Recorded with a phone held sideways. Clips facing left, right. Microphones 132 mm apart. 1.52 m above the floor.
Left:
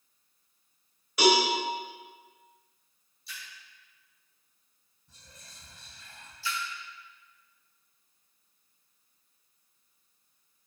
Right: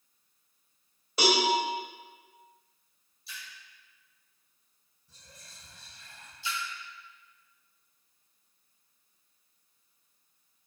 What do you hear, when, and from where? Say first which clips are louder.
1.2 s a cowbell: left 4 dB; 30° right (ahead or behind), 1.0 m
3.3 s a splash: even; 5° right (ahead or behind), 1.2 m
5.1 s whispering: even; 60° left (ahead or behind), 1.7 m
6.4 s a splash: left 1 dB; 20° right (ahead or behind), 0.6 m